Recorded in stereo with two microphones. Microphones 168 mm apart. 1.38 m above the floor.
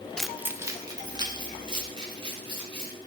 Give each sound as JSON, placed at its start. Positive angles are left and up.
{"t": 0.2, "sound": "keys jangling", "side_deg": 5, "distance_m": 0.6}